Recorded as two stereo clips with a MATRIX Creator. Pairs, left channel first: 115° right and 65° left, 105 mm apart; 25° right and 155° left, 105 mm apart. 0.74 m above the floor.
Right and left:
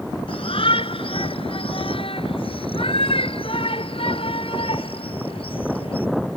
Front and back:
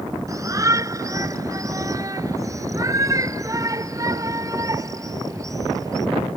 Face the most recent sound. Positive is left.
turn(degrees=-145)